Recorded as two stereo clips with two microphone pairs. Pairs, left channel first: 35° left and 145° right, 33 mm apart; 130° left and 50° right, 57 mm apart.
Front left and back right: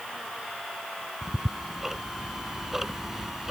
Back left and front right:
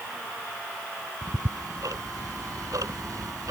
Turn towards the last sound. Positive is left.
turn(degrees=-60)